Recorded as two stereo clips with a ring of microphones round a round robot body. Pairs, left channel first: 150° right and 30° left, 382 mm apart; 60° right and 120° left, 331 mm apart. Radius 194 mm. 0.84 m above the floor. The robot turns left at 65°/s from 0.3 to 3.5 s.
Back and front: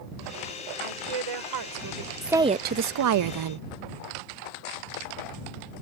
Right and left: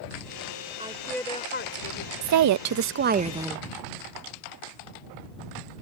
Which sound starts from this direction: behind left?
A woman speaking, at 2.2 s.